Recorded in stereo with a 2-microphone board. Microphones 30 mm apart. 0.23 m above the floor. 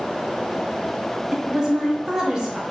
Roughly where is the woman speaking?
Right.